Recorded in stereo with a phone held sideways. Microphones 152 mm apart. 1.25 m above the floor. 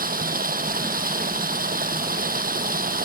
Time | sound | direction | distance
0.0 | running water | 70° right (ahead or behind) | ?